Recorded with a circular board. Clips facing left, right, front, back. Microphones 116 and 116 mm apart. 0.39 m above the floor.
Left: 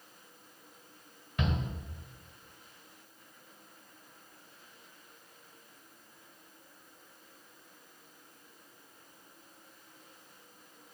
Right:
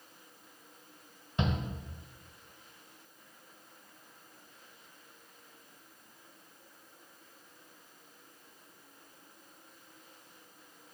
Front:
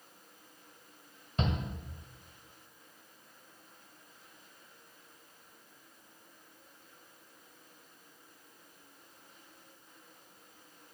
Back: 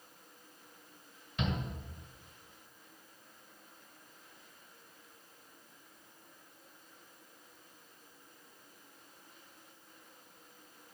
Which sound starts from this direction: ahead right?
A shout, at 1.4 s.